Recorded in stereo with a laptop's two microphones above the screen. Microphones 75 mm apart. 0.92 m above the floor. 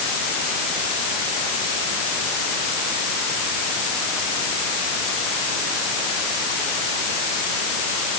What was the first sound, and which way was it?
Only background noise.